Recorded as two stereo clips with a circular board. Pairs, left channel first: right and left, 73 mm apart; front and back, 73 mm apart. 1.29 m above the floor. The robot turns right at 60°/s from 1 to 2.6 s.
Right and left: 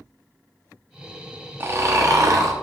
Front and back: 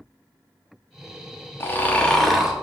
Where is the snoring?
45° left, 0.7 m; by 2.5 s 100° left, 0.7 m.